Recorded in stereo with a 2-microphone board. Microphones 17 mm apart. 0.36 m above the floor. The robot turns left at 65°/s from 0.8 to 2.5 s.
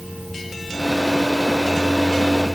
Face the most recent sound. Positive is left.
No sound to turn to.